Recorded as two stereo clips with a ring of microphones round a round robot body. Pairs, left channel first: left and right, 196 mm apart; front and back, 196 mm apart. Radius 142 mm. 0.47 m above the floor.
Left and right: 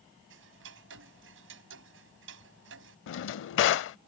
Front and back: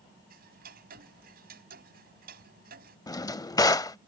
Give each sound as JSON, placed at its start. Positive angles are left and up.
{"t": 0.3, "sound": "ticking", "azimuth_deg": -125}
{"t": 3.1, "sound": "a drawer", "azimuth_deg": 75}